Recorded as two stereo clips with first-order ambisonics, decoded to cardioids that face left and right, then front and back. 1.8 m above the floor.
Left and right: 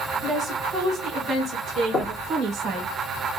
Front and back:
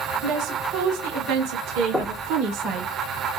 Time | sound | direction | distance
0.2 | a woman speaking | 175° right | 3 m
1.9 | knocking | 85° left | 1.0 m